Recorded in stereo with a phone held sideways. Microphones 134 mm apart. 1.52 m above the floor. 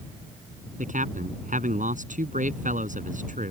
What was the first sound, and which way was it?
A man speaking, 75° right (ahead or behind).